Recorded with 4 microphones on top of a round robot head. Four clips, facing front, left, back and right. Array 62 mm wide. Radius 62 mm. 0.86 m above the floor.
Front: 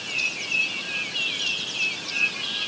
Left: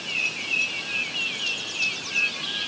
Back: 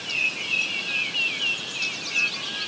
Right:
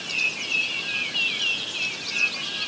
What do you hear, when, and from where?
Only background noise.